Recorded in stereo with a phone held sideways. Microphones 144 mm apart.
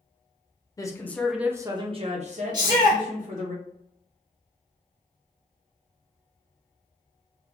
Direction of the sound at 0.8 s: 25° left (ahead or behind).